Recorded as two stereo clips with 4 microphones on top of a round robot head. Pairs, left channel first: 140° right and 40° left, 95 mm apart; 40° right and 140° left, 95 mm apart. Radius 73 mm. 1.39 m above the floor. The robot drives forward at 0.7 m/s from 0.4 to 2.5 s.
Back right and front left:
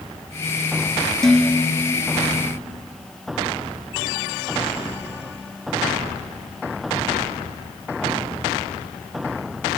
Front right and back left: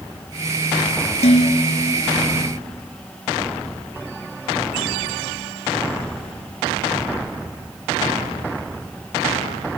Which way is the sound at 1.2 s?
55° right.